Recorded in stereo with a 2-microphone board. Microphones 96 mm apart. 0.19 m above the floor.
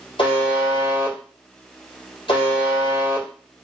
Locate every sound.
0.2 s a buzzer: 80° left, 2.5 m